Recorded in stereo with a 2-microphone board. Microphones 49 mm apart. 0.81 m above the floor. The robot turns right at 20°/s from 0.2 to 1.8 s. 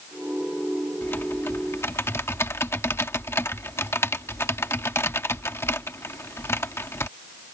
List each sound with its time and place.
1.0 s typing on a keyboard: 45° left (ahead or behind); by 7.1 s 60° left (ahead or behind)